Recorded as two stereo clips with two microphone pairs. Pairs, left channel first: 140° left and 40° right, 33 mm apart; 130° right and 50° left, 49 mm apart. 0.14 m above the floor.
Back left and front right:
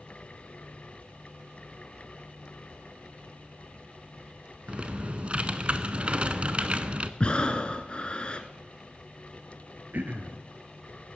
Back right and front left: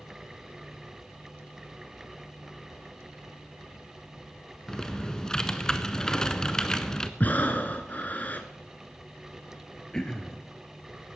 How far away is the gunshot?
No gunshot in this recording.